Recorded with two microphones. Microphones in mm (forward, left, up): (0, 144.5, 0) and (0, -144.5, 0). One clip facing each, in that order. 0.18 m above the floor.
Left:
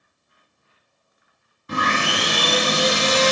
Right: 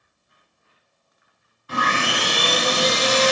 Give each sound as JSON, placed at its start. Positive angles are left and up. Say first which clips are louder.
{"t": 1.7, "sound": "sawing", "louder": "left 1 dB", "side_deg": 40, "distance_m": 1.0}